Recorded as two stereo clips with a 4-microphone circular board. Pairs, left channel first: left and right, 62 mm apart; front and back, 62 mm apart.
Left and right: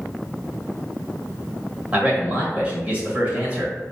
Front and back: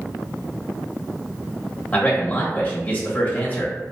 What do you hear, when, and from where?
1.9 s a man speaking: 40° right, 1.2 m